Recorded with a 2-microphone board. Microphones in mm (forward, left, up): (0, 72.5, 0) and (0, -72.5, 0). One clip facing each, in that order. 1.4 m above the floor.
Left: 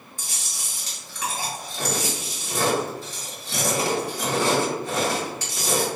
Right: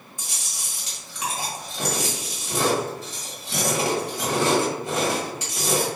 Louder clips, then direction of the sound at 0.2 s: Even; 20° right (ahead or behind).